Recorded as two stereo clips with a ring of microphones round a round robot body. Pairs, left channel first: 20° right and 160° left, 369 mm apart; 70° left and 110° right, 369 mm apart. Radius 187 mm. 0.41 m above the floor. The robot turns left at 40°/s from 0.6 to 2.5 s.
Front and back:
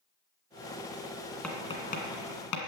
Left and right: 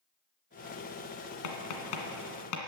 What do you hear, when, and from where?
1.4 s tapping: 65° left, 2 m; by 2.6 s 25° left, 2 m